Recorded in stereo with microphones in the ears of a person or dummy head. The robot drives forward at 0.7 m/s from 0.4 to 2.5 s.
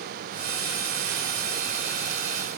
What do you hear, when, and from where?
Only background noise.